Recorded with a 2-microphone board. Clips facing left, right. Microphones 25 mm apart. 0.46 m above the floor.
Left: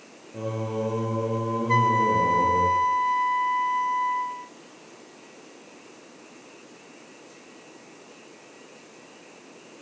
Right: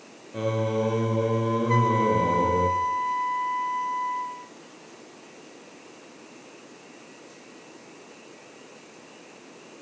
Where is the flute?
30° left (ahead or behind), 0.6 m.